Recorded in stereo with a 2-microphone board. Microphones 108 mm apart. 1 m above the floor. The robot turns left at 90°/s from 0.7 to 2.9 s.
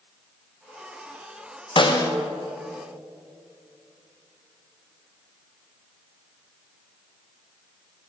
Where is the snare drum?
70° left, 0.5 m; by 2.1 s 40° left, 0.5 m.